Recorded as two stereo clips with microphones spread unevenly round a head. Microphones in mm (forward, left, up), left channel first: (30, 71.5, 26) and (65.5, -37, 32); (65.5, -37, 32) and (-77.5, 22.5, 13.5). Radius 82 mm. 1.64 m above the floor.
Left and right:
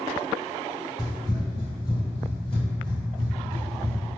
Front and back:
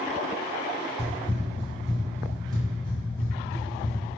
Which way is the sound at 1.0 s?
75° left.